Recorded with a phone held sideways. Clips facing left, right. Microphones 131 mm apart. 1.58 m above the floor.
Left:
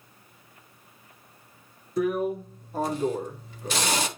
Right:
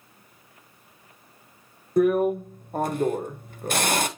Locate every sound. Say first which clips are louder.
2.0 s a drill: right 6 dB; 55° right (ahead or behind), 1.2 m